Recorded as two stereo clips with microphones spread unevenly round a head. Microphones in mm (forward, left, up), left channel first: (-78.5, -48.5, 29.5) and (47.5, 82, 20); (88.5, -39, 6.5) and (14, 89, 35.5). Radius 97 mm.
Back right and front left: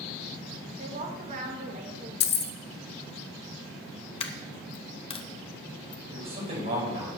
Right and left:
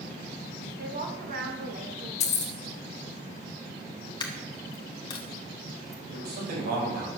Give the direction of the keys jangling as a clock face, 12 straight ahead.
4 o'clock.